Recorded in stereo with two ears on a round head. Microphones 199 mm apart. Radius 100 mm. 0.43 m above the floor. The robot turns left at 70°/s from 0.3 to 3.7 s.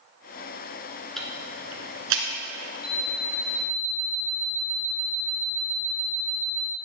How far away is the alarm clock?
About 1.8 m.